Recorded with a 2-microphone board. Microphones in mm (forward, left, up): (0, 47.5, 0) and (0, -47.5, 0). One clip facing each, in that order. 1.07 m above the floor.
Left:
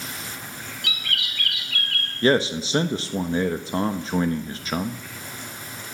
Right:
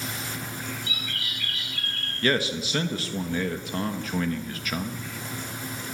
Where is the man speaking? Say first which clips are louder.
Left 5 dB; 30° left (ahead or behind), 1.1 m.